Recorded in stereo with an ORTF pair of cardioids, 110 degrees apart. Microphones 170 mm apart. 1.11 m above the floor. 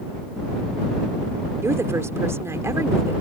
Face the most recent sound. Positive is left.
turn(degrees=-15)